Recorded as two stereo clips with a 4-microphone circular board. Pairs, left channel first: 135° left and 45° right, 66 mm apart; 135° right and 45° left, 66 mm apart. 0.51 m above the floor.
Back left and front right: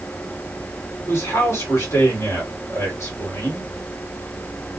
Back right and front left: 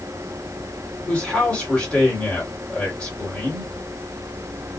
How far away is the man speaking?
About 2.0 m.